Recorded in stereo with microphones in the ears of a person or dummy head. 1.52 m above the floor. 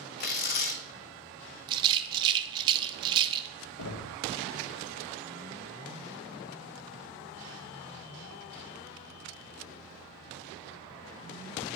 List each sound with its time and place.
0.2 s tearing paper: 50° left (ahead or behind), 0.9 m
1.7 s a rattle: 25° right (ahead or behind), 0.6 m
3.8 s knocking: 70° left (ahead or behind), 0.8 m